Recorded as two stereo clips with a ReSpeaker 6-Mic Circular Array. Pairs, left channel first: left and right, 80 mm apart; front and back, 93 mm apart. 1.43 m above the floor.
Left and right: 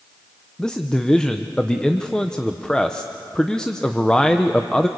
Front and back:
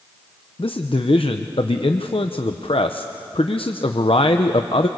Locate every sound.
0.6 s a man speaking: 10° left, 0.9 m